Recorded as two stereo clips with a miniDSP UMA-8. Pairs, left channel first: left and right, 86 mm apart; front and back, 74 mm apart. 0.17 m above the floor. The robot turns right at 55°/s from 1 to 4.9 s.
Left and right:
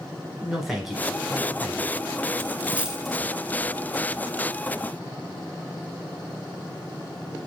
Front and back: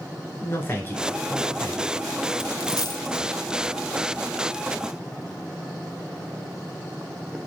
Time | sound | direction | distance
0.4 | a man speaking | 5° right | 1.2 m
2.4 | a dropped coin | 35° right | 0.5 m